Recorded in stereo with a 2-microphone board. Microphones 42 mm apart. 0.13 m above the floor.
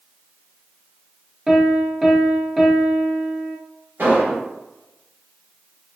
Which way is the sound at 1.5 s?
5° right (ahead or behind).